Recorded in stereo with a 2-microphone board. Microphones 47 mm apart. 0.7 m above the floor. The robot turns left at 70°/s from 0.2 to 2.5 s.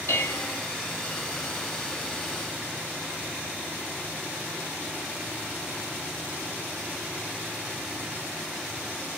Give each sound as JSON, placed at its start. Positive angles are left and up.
{"t": 0.1, "sound": "dishes clattering", "side_deg": 65, "distance_m": 2.5}